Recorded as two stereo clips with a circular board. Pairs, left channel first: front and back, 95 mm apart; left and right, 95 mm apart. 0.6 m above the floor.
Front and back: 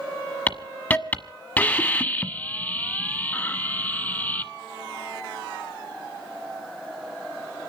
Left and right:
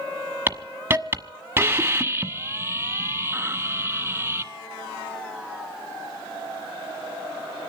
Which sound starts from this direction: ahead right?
A hiss, at 0.5 s.